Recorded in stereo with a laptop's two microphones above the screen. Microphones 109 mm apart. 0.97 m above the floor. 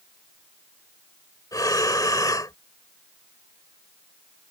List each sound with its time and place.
1.5 s breathing: 35° left (ahead or behind)